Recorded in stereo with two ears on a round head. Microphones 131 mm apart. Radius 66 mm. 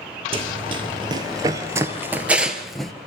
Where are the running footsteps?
40° right (ahead or behind), 2 m; by 2.9 s centre (ahead or behind), 1.7 m.